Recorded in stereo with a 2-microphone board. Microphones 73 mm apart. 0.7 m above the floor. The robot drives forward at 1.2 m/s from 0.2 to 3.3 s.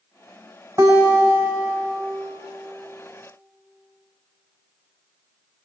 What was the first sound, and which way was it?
A guitar, 50° right (ahead or behind).